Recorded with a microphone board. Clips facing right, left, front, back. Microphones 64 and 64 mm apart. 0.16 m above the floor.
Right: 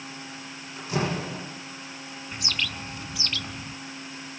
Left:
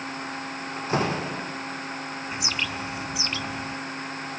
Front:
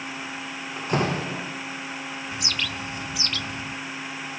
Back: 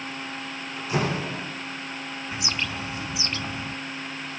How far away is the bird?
About 0.6 m.